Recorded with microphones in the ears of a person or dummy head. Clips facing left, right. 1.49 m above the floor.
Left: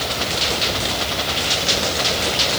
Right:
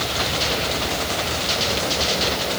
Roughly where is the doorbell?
No doorbell in this recording.